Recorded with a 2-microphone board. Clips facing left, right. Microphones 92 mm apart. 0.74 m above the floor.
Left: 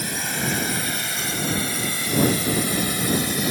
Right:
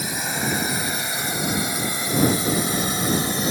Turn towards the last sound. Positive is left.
turn(degrees=-30)  # may be behind; listen again after turning